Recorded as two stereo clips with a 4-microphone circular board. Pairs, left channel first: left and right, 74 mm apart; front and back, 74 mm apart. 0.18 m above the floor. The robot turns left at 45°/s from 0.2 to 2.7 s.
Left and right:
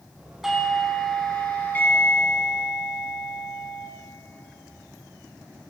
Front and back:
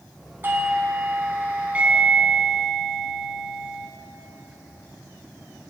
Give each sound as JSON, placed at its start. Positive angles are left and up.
{"t": 0.4, "sound": "a doorbell", "azimuth_deg": -170, "distance_m": 2.0}